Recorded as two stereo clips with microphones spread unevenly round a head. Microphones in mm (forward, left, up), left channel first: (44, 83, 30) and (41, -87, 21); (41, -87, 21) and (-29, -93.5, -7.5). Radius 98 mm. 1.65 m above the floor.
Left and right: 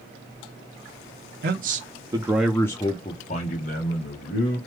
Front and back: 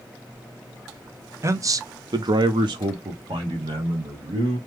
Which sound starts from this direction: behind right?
A man speaking, at 1.4 s.